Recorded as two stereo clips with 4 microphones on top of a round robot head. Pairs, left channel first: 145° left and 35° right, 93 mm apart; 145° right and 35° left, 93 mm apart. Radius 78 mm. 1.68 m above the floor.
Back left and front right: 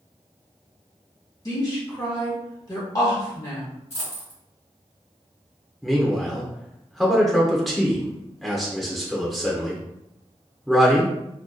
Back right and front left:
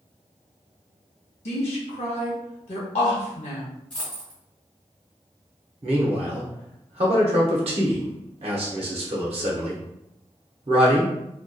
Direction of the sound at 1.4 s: 160° right.